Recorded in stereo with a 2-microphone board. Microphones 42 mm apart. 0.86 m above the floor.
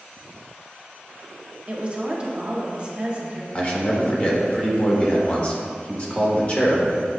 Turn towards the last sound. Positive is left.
turn(degrees=35)  # may be behind; listen again after turning